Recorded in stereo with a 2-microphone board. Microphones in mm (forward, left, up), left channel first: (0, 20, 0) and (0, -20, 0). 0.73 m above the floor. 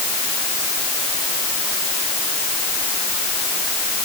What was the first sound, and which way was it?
Only background noise.